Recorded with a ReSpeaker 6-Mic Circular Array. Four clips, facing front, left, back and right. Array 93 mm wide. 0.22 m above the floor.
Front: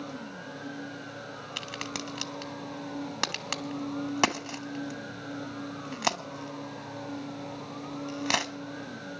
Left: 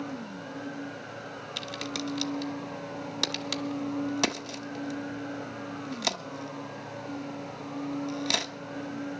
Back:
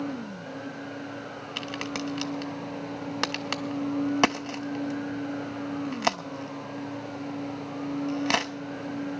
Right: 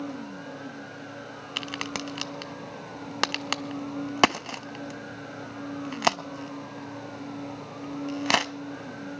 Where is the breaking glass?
No breaking glass in this recording.